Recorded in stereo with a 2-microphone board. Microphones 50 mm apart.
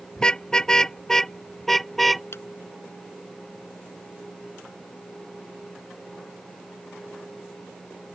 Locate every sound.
0.2 s a car horn: 15° left (ahead or behind); by 2.2 s centre (ahead or behind)
2.3 s a clap: 55° left (ahead or behind)